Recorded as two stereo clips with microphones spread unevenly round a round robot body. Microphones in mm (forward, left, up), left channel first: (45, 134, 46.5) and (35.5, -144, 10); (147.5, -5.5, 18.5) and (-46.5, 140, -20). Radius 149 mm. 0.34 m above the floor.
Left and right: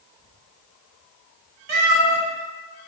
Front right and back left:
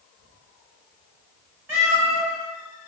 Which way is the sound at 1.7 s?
140° right.